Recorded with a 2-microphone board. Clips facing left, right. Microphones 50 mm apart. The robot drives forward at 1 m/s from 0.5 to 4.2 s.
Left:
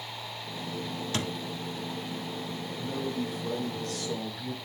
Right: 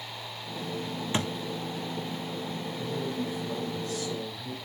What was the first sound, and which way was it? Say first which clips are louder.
A thud: right 3 dB; 25° right (ahead or behind).